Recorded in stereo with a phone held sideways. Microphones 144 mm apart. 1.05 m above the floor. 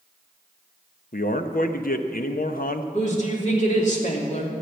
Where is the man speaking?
75° left (ahead or behind), 0.8 m.